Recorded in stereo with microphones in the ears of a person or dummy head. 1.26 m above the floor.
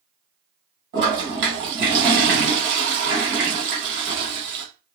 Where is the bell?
I don't hear a bell.